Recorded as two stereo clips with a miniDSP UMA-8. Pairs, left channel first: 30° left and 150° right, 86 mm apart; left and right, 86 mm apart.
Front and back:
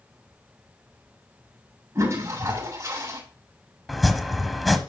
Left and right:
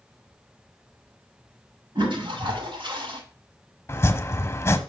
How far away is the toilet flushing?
About 7 m.